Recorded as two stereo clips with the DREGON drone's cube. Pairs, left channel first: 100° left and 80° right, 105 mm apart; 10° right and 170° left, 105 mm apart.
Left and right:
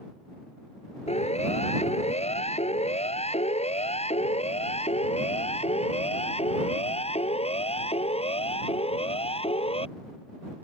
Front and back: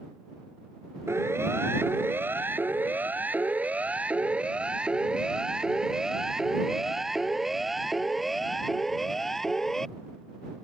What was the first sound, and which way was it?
A siren, 105° left.